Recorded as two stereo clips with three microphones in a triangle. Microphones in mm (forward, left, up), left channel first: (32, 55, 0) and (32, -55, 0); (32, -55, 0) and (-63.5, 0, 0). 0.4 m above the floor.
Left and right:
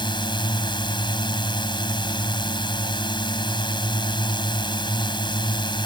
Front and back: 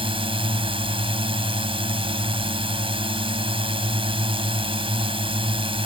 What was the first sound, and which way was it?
A drone, 125° left.